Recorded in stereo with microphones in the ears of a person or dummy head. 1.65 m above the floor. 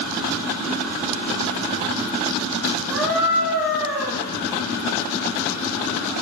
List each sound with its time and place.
2.9 s a scream: 10° right (ahead or behind), 3.5 m; by 4.2 s 5° left (ahead or behind), 4 m